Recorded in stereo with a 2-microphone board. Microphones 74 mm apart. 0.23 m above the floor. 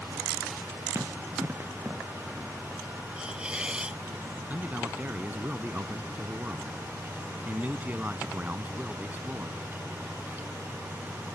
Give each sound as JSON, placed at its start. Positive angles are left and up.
{"t": 0.9, "sound": "running footsteps", "side_deg": -35}
{"t": 3.2, "sound": "a hiss", "side_deg": -15}
{"t": 4.5, "sound": "a man speaking", "side_deg": -25}